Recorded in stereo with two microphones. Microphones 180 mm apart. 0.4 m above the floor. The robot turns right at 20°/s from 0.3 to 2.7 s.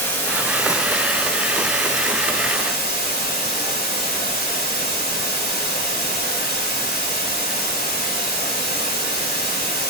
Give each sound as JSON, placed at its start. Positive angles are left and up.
{"t": 0.0, "sound": "running water", "azimuth_deg": 10, "distance_m": 2.5}